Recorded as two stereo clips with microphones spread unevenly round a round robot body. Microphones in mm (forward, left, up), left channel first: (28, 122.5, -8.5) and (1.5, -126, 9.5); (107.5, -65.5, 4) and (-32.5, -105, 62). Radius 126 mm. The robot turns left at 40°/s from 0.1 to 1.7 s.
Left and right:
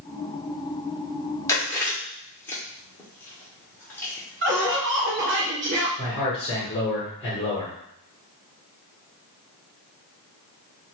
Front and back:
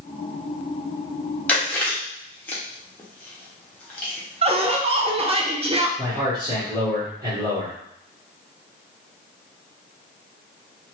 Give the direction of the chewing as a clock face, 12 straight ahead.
11 o'clock.